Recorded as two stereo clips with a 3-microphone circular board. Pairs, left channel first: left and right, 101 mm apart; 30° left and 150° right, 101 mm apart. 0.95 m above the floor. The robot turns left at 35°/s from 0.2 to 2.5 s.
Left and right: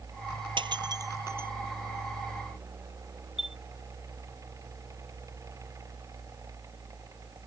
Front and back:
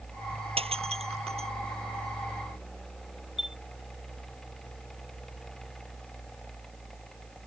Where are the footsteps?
I don't hear footsteps.